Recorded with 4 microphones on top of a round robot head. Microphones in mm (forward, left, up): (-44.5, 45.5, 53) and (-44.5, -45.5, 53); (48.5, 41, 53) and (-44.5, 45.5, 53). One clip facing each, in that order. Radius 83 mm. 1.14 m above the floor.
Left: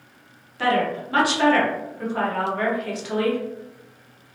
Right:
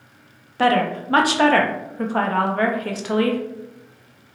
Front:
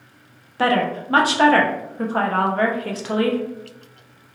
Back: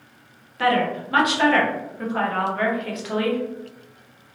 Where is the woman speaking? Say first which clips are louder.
Right 3 dB, front 1 dB; 55° right, 0.5 m.